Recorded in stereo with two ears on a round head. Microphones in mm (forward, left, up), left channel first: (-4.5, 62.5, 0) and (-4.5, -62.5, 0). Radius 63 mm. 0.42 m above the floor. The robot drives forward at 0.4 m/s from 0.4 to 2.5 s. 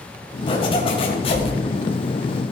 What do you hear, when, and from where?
0.5 s a zipper: 35° left (ahead or behind), 2.5 m; by 1.5 s 40° left (ahead or behind), 2.5 m